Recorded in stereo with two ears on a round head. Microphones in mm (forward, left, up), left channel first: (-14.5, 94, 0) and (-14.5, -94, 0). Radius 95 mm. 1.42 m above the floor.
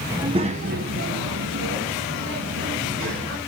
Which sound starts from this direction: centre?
A child speaking, at 0.1 s.